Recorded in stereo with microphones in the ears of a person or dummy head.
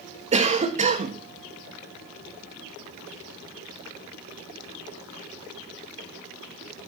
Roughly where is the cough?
Right.